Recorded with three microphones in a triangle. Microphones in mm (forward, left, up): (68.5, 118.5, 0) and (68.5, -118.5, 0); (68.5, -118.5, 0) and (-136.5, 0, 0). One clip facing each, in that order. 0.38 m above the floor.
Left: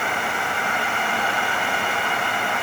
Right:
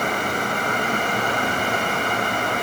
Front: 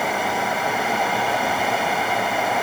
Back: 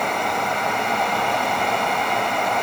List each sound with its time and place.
Only background noise.